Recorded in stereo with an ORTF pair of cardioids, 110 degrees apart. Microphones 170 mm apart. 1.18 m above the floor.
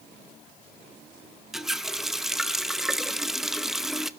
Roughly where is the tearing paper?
I don't hear tearing paper.